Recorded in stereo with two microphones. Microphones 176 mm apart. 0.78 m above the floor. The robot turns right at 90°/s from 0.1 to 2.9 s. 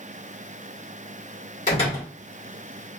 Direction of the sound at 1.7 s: 135° left.